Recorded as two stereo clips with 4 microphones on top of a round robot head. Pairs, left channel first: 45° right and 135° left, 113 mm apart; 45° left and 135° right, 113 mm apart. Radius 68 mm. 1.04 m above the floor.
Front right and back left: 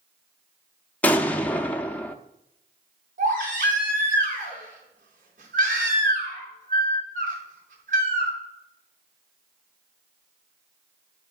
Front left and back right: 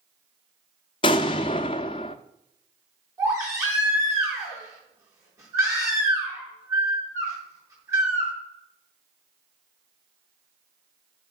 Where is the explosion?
30° left, 0.5 m.